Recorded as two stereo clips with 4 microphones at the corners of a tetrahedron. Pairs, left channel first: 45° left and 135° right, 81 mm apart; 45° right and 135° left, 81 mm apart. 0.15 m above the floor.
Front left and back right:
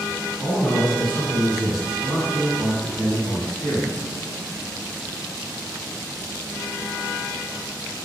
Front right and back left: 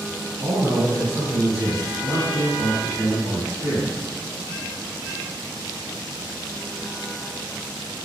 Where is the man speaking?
160° right, 1.8 m; by 4.1 s 70° left, 2.0 m.